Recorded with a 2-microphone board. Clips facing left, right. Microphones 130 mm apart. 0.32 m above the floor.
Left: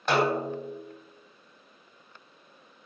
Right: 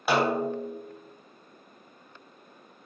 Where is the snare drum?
10° right (ahead or behind), 1.0 m.